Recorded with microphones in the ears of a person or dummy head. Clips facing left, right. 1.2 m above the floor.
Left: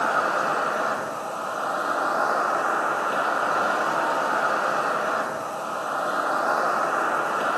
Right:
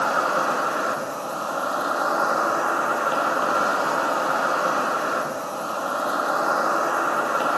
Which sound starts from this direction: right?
An insect, at 0.0 s.